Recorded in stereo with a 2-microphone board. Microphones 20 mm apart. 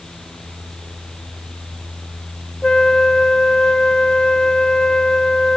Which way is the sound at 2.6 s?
45° left (ahead or behind).